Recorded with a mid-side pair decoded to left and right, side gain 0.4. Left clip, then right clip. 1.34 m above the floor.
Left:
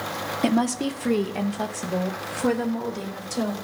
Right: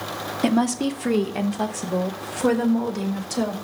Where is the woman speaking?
5° right, 1.0 m; by 3.5 s 25° right, 2.5 m.